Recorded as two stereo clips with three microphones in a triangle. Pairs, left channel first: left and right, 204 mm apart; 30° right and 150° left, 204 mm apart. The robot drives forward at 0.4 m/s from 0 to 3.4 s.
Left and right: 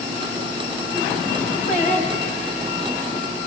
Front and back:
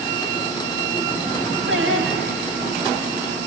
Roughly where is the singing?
Behind left.